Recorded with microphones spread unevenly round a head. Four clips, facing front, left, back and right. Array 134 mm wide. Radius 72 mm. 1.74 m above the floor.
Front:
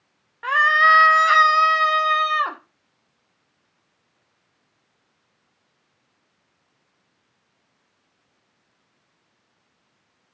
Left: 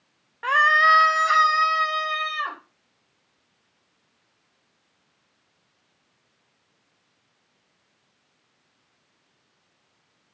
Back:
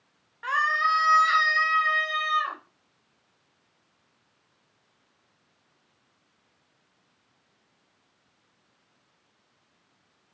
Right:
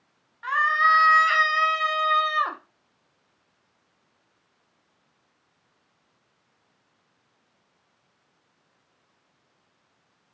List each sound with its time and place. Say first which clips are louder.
0.4 s a scream: left 3 dB, front 8 dB; 65° left, 0.9 m; by 2.6 s 25° right, 1.9 m